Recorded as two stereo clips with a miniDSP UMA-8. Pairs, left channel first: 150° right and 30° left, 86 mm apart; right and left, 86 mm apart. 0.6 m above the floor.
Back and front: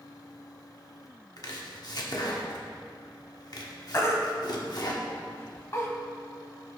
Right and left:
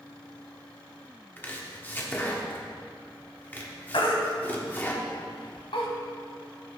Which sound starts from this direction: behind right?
Chopping, at 1.4 s.